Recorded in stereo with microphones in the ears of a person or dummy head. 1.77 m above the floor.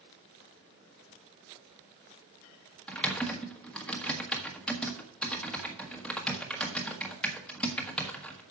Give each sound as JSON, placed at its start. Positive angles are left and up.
{"t": 2.9, "sound": "typing on a keyboard", "side_deg": 0, "distance_m": 1.5}